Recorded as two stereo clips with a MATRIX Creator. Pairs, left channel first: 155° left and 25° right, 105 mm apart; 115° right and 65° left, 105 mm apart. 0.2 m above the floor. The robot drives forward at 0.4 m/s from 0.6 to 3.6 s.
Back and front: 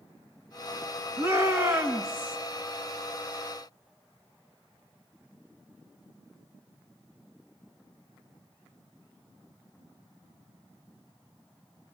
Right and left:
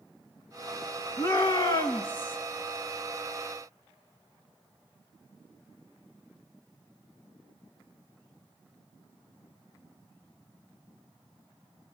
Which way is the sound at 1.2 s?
75° right.